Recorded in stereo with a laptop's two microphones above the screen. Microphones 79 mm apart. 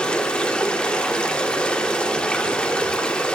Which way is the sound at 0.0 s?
15° left (ahead or behind).